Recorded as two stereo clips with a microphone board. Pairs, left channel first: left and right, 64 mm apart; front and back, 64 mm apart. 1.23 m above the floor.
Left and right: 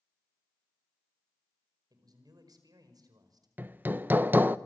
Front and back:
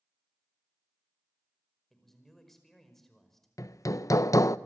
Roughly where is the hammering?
Ahead right.